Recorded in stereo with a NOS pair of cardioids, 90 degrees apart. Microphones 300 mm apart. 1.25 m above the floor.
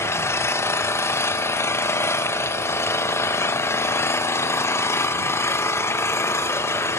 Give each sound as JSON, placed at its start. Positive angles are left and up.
{"t": 0.0, "sound": "an engine running", "azimuth_deg": 10, "distance_m": 0.9}